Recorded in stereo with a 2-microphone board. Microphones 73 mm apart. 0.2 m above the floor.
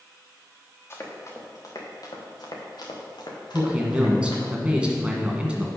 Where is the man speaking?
15° right (ahead or behind), 1.6 m.